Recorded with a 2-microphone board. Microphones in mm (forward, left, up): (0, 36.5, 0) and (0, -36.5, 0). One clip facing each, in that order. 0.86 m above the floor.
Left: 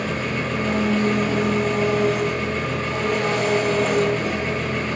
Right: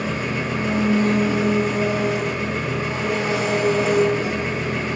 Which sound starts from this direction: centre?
An engine running, at 0.0 s.